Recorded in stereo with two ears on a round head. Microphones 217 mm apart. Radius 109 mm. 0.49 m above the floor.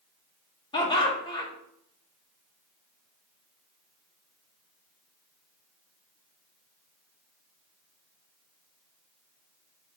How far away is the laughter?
About 1.0 m.